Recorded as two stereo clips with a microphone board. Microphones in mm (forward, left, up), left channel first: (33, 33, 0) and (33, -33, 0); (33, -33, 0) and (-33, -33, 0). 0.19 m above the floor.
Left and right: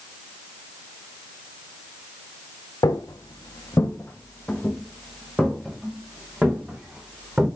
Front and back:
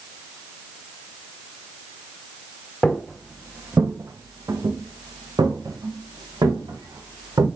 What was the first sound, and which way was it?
Footsteps, 85° left.